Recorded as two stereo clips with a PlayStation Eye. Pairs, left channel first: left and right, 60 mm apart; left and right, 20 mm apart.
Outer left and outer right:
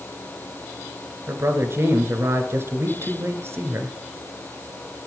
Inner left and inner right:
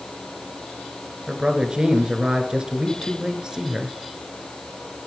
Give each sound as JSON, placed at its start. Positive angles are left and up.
{"t": 1.3, "sound": "a man speaking", "side_deg": -45, "distance_m": 1.6}